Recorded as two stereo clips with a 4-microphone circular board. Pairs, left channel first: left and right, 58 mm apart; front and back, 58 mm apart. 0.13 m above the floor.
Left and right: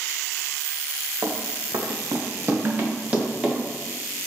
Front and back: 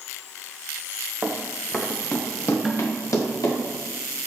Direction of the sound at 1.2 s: 110° right.